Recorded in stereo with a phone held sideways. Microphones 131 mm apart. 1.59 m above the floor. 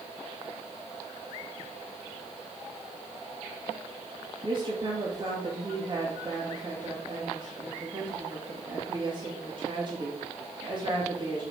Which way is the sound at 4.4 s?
35° right (ahead or behind).